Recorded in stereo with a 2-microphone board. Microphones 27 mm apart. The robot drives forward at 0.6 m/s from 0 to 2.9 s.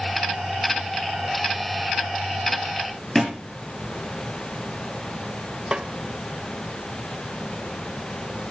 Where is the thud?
10° left (ahead or behind), 5 m.